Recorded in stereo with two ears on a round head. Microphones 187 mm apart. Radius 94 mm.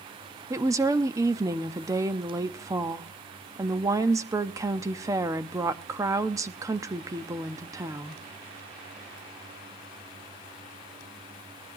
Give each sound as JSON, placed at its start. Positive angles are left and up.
{"t": 0.5, "sound": "a woman speaking", "side_deg": -15, "distance_m": 0.7}